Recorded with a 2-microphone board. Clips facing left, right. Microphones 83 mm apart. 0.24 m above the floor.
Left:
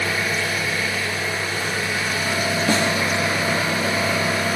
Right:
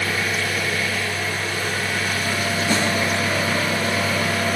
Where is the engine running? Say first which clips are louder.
Even; 10° left (ahead or behind), 1.9 m.